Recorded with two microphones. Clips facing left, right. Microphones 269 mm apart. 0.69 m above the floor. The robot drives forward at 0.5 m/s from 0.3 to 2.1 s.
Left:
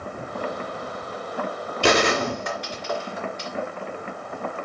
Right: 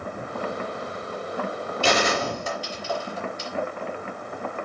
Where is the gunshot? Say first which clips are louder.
Left 4 dB; 75° left (ahead or behind), 2.5 m; by 3.5 s 80° left, 2.5 m.